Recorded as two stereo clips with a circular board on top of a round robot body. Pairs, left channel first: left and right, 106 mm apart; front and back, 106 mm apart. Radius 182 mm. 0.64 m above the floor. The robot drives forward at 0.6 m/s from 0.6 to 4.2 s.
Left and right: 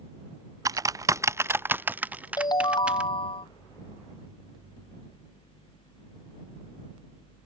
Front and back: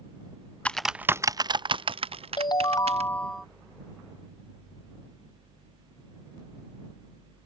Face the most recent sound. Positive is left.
turn(degrees=130)